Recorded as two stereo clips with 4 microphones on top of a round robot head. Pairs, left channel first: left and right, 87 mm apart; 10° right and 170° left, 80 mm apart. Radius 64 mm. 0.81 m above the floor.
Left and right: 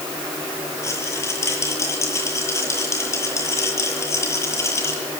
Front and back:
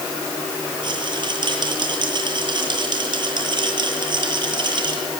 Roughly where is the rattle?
Behind left.